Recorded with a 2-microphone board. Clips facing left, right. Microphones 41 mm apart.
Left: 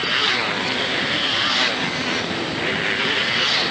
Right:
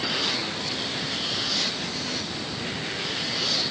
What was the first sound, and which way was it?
A motorcycle, 45° left (ahead or behind).